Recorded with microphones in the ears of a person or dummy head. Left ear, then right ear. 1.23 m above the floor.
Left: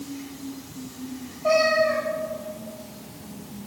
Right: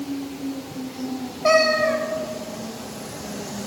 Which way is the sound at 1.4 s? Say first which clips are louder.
Right 2 dB; 75° right (ahead or behind).